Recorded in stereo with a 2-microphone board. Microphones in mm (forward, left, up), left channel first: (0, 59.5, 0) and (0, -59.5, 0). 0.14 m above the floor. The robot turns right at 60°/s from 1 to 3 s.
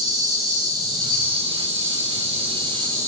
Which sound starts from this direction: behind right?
An insect, at 0.0 s.